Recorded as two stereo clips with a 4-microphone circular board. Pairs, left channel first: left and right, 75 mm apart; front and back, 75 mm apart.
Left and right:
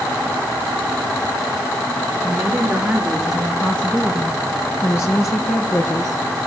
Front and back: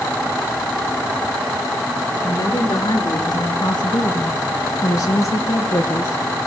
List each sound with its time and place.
2.2 s a woman speaking: 25° right, 2.5 m; by 6.4 s 55° left, 4 m